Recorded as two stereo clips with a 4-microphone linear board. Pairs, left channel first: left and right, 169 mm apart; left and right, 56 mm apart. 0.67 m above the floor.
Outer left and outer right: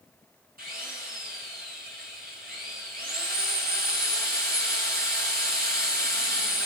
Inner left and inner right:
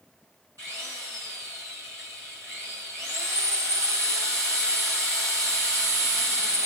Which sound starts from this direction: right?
A drill, at 0.6 s.